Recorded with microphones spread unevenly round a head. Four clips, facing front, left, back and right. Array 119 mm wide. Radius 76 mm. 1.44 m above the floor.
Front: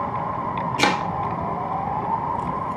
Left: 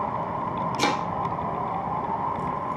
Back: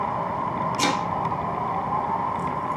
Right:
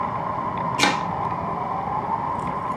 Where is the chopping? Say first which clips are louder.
Right 3 dB, front 4 dB; 75° right, 1.3 m.